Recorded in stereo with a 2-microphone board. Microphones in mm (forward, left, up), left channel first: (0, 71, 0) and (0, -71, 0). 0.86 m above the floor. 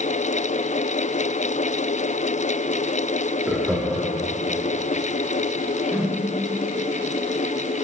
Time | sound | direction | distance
3.5 | laughter | centre (ahead or behind) | 1.5 m
5.9 | a whoosh | 10° right (ahead or behind) | 0.6 m